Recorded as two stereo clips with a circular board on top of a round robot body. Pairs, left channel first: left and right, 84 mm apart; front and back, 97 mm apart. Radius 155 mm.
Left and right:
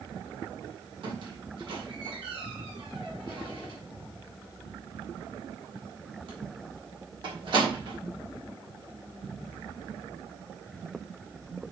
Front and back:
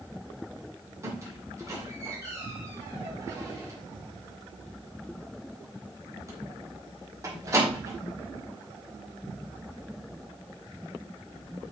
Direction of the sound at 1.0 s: 120° right.